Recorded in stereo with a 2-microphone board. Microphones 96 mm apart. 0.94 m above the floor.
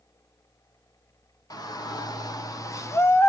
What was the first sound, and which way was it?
A shout, 40° left (ahead or behind).